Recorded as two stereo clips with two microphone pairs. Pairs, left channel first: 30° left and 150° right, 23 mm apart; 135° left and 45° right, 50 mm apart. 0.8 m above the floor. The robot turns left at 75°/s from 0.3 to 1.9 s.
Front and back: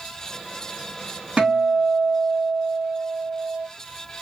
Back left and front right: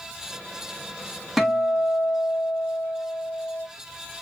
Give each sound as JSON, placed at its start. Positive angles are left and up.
{"t": 1.4, "sound": "a guitar", "azimuth_deg": -140, "distance_m": 1.7}